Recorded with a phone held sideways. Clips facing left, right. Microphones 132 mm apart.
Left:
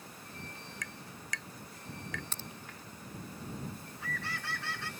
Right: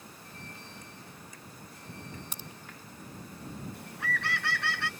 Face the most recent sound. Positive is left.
turn(degrees=-70)  # may be behind; listen again after turning